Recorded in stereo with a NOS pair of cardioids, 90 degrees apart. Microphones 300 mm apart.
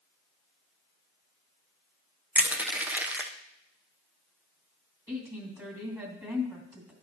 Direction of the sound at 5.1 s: 10° right.